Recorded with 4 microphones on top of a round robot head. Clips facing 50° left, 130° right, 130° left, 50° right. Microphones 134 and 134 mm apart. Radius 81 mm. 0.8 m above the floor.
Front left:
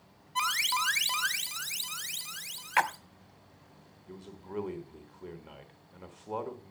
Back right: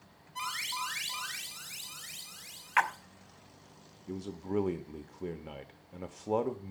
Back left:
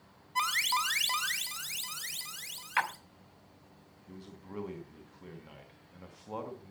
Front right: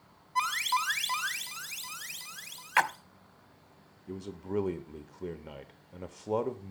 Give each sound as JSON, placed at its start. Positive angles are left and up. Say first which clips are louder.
{"t": 0.3, "sound": "an alarm", "louder": "front left 6 dB, front right 2 dB", "azimuth_deg": 70, "distance_m": 2.5}
{"t": 2.8, "sound": "a splash", "louder": "front left 1 dB, front right 5 dB", "azimuth_deg": -5, "distance_m": 0.7}
{"t": 4.1, "sound": "a man speaking", "louder": "back right 8 dB, front right 11 dB", "azimuth_deg": -85, "distance_m": 1.0}